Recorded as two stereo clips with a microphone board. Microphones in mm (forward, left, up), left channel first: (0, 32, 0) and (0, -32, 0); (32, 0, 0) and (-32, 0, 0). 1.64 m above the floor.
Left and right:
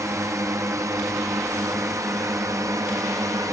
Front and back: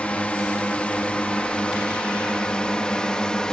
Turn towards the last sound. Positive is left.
turn(degrees=-75)